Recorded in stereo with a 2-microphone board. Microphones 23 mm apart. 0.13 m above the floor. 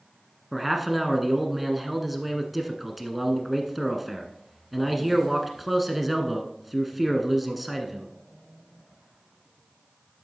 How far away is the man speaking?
About 1.1 m.